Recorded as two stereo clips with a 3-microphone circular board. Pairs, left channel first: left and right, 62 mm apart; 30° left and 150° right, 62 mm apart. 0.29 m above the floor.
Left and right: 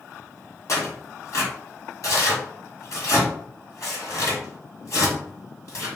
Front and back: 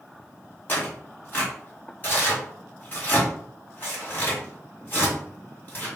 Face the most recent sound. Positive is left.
turn(degrees=80)